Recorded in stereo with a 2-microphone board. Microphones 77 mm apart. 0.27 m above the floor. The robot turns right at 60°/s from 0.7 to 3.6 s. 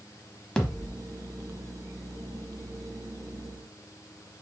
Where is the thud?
10° left (ahead or behind), 0.9 m; by 0.9 s centre (ahead or behind), 0.9 m.